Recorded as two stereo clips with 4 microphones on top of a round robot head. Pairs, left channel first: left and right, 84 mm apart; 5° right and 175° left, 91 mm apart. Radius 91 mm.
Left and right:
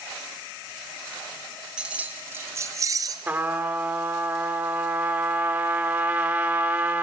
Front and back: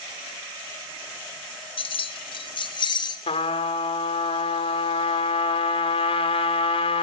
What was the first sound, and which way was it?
Keys jangling, 10° right.